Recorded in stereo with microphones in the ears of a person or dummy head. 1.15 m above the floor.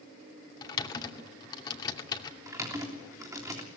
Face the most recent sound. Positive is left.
turn(degrees=-5)  # may be behind; listen again after turning